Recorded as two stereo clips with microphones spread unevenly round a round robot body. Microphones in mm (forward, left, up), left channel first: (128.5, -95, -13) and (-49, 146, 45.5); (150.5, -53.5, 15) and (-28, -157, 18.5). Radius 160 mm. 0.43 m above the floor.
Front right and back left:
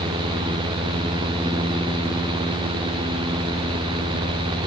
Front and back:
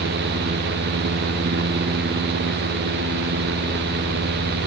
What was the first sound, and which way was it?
Only background noise.